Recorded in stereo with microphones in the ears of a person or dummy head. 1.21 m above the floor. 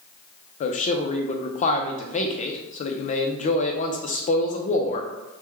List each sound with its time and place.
0.6 s a man speaking: 40° left (ahead or behind), 0.5 m